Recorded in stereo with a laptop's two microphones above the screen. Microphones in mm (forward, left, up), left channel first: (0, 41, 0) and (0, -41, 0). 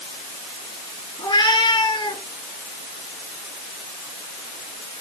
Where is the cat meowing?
60° left (ahead or behind), 3 m; by 2.2 s 70° left (ahead or behind), 2.5 m.